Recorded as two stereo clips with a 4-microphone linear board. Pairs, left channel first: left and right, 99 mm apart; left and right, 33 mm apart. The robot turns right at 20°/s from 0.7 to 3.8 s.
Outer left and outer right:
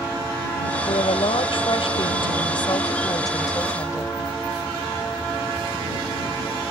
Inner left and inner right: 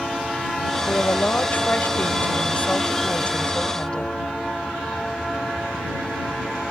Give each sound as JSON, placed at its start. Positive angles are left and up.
{"t": 0.9, "sound": "a woman speaking", "azimuth_deg": 85}